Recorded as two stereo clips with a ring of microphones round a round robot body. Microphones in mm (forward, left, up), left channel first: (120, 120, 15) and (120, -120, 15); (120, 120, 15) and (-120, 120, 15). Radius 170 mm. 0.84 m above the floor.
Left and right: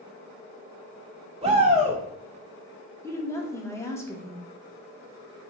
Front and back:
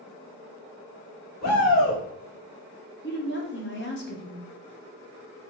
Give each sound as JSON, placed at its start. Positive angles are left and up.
{"t": 1.4, "sound": "a shout", "azimuth_deg": -30, "distance_m": 1.0}
{"t": 3.0, "sound": "a woman speaking", "azimuth_deg": 15, "distance_m": 1.1}